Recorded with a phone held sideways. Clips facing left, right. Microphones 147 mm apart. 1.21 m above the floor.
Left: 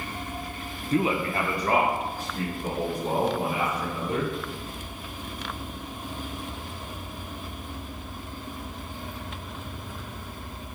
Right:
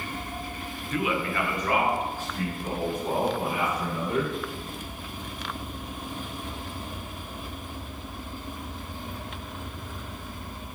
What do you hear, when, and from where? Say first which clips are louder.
0.9 s a man speaking: left 3 dB; 35° left (ahead or behind), 0.5 m